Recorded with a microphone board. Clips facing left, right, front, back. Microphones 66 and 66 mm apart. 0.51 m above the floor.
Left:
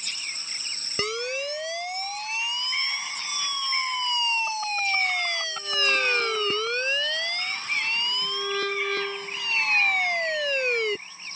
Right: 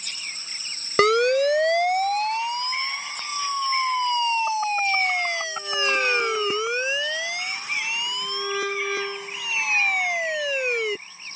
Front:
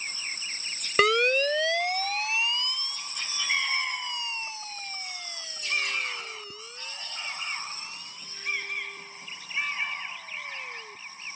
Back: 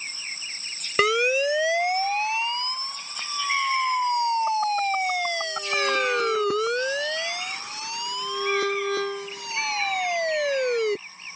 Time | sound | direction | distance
1.0 | a siren | 95° right | ?